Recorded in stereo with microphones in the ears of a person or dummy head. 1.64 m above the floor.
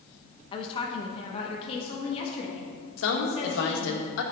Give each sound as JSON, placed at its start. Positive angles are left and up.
{"t": 0.5, "sound": "a woman speaking", "side_deg": 25, "distance_m": 1.1}
{"t": 3.0, "sound": "a woman speaking", "side_deg": 70, "distance_m": 1.8}